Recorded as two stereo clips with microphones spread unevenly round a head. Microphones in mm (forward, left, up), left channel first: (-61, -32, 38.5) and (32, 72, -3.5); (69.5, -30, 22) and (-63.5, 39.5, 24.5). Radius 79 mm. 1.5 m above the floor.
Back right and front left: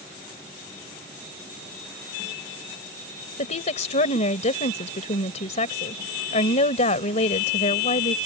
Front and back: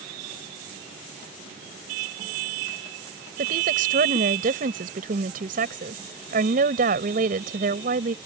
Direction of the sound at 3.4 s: 170° right.